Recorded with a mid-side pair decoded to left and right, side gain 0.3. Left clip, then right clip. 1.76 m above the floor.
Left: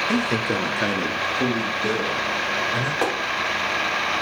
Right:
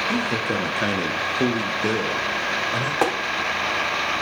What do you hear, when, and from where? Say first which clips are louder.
0.1 s a man speaking: left 1 dB; 45° left, 0.8 m; by 2.9 s 60° right, 2 m
3.0 s tapping: right 3 dB; 50° right, 0.9 m